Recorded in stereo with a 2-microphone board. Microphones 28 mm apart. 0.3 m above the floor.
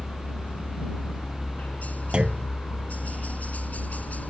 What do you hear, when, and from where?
0.0 s a helicopter: 60° left (ahead or behind)
2.1 s a clunk: 35° right (ahead or behind)